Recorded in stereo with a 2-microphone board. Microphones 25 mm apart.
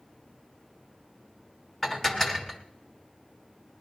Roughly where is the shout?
I don't hear a shout.